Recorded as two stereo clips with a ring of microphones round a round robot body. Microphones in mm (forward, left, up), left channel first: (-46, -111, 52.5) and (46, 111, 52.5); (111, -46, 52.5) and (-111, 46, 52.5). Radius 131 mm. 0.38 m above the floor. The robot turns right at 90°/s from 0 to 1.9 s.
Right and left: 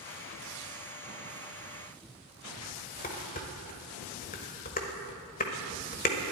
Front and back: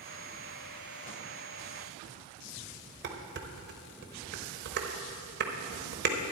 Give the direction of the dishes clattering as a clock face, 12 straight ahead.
5 o'clock.